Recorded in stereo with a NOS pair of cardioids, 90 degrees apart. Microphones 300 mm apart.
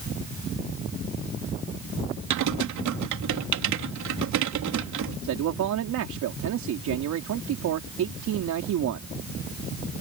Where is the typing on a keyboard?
70° right.